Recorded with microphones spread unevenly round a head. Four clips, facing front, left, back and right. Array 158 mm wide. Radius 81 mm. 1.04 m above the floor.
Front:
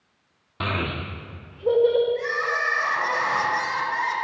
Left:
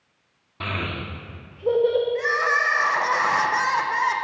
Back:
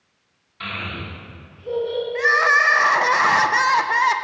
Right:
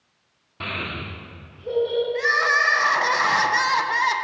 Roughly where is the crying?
Behind.